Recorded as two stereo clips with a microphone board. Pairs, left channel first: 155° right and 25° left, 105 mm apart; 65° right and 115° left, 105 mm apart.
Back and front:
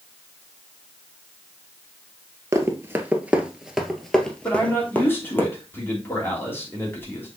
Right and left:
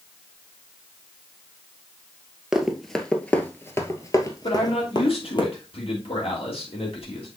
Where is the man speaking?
90° right, 3 m.